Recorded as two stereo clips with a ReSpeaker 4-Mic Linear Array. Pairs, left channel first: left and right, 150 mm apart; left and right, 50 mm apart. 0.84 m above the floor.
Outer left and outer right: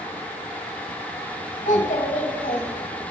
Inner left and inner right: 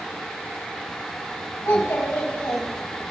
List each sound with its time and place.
1.6 s a child speaking: 60° left (ahead or behind), 4 m